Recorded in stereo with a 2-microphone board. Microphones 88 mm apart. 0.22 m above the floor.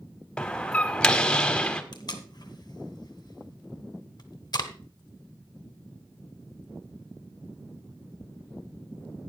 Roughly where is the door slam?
Centre.